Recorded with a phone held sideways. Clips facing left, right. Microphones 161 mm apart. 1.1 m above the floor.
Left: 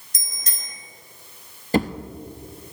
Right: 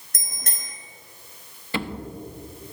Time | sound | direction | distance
0.1 | a bicycle bell | 60° right (ahead or behind) | 4 m
1.7 | a drawer | 40° left (ahead or behind) | 0.9 m